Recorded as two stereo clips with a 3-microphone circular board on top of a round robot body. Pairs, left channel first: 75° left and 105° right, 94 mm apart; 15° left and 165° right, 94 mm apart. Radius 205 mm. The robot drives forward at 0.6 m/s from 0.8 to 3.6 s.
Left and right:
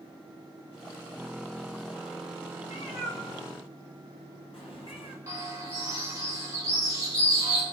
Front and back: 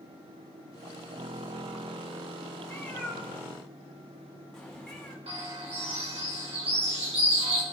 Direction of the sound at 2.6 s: 90° left.